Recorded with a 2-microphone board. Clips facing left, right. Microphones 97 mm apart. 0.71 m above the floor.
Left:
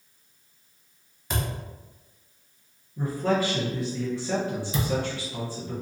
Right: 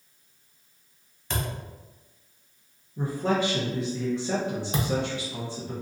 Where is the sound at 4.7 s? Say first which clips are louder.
Even; 55° right (ahead or behind), 0.6 m.